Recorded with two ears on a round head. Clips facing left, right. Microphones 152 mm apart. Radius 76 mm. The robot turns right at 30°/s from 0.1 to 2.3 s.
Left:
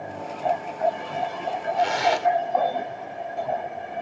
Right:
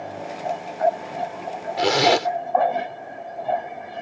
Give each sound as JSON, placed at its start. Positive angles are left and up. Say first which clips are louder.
{"t": 1.8, "sound": "a zipper", "louder": "right 4 dB", "side_deg": -75}